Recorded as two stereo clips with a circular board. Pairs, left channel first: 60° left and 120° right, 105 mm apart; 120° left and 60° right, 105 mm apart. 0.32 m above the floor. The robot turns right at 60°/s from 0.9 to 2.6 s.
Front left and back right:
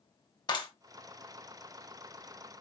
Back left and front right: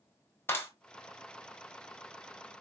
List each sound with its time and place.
0.5 s a clap: 65° left, 1.3 m